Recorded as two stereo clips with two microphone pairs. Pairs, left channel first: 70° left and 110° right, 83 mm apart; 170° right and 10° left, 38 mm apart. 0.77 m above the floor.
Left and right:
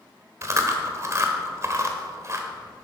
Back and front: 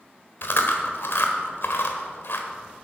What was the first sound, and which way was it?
Chewing, 160° right.